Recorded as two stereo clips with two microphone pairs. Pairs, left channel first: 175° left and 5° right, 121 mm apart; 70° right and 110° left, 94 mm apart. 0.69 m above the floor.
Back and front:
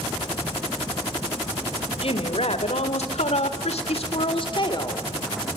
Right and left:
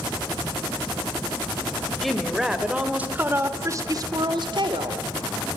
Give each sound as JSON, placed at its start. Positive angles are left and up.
{"t": 2.0, "sound": "a woman speaking", "azimuth_deg": -155, "distance_m": 3.0}